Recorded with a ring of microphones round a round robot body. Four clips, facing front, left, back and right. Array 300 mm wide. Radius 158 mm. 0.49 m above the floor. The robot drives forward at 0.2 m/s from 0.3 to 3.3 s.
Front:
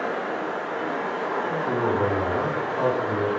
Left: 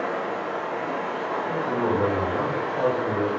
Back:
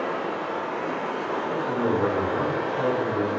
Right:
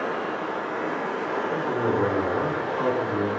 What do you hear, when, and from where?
0.0 s running water: 130° right, 0.9 m; by 3.4 s 150° right, 1.3 m
1.5 s a man speaking: 45° right, 1.7 m; by 3.3 s 60° right, 1.6 m